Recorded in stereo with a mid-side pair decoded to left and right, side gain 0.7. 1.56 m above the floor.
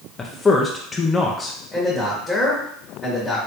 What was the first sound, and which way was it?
A man speaking, 15° left.